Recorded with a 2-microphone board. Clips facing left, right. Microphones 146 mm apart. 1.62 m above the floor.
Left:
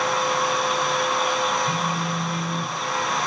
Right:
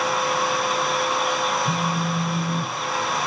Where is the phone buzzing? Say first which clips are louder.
Right 1 dB; 20° right (ahead or behind), 1.5 m.